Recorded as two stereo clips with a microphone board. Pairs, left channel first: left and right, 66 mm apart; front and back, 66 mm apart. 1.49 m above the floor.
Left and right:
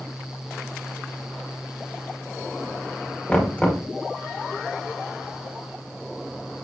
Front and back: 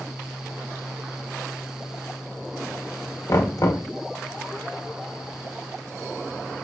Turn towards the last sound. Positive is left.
turn(degrees=20)